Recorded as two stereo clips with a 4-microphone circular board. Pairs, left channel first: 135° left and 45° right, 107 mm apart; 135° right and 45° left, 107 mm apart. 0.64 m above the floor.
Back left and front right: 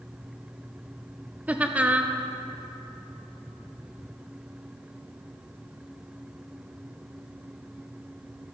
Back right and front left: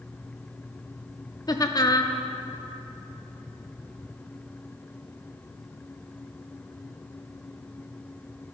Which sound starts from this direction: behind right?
Laughter, at 1.5 s.